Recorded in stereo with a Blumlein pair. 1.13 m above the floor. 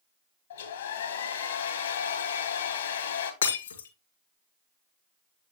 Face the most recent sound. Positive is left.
turn(degrees=65)